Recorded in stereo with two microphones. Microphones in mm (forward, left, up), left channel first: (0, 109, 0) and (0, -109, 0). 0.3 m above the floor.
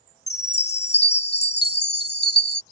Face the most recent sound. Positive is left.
turn(degrees=50)  # may be behind; listen again after turning